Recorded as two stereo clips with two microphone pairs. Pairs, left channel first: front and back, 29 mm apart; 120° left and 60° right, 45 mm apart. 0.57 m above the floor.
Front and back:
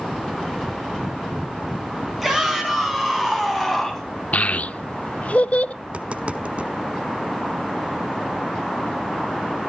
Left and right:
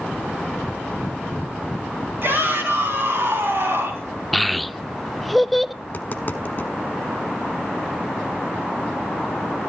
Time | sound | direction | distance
2.2 | a shout | 95° right | 5 m
4.3 | a child speaking | 30° left | 0.5 m
5.8 | tapping | 150° left | 0.7 m